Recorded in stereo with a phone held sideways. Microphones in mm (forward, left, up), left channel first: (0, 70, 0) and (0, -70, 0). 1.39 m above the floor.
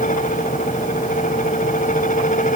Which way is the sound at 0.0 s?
80° left.